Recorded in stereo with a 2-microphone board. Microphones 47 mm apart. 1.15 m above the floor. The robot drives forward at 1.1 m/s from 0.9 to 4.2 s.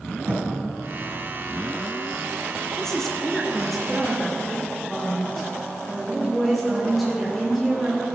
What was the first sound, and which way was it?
A thud, 75° right (ahead or behind).